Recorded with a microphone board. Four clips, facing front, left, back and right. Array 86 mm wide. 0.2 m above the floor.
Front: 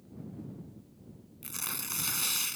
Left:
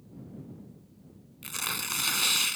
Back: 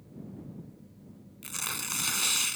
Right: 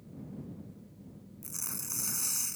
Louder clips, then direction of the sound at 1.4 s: Left 13 dB, back 4 dB; 110° left.